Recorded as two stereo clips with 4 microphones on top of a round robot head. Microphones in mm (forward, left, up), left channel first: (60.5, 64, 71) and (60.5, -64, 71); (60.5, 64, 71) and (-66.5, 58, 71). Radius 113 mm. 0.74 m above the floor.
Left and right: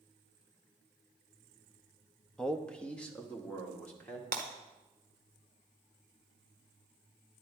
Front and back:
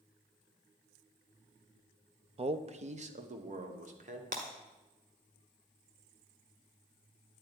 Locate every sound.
2.4 s a man speaking: 175° left, 0.7 m; by 4.2 s 170° left, 2.0 m
4.3 s breaking glass: 130° right, 1.0 m